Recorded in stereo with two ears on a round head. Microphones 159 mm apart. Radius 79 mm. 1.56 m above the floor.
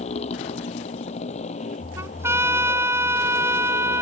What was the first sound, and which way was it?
A motorcycle, 40° left (ahead or behind).